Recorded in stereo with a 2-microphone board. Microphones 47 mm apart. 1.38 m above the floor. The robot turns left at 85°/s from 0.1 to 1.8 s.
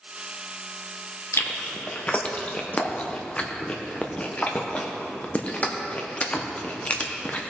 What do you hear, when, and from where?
1.3 s chewing: 65° left (ahead or behind), 1.0 m; by 7.4 s 30° left (ahead or behind), 1.0 m